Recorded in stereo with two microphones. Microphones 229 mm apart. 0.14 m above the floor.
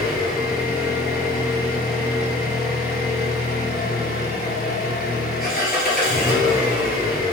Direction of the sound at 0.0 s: 40° left (ahead or behind).